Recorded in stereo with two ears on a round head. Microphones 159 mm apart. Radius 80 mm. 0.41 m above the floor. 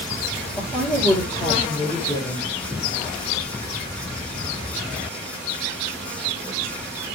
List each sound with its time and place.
0.6 s a woman speaking: centre (ahead or behind), 7.5 m; by 2.5 s 10° left (ahead or behind), 7 m